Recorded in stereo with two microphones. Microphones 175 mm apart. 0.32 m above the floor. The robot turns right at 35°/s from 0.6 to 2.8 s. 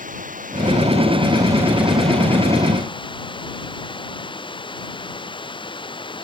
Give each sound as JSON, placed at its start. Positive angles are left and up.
{"t": 0.0, "sound": "running water", "azimuth_deg": -50}